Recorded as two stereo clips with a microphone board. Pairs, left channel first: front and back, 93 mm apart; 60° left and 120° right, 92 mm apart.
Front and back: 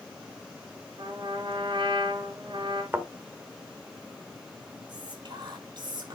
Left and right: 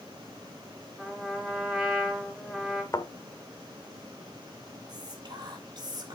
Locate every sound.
1.0 s a trumpet: 155° left, 3.5 m
2.9 s a thud: 115° left, 1.4 m
4.9 s whispering: 155° right, 2.5 m